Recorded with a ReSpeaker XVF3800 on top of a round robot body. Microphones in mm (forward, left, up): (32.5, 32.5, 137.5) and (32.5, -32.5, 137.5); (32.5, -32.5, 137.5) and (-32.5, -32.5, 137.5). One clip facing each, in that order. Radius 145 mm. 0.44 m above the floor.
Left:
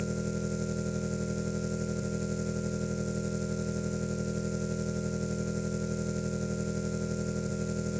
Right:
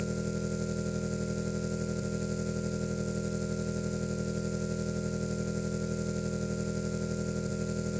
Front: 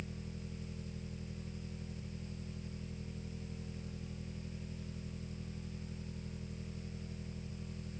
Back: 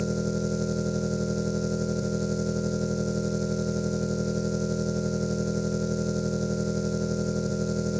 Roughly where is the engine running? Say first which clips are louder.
Even, back 20 dB; behind.